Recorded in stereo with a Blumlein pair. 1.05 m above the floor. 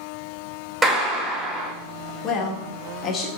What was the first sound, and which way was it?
A clap, 10° right.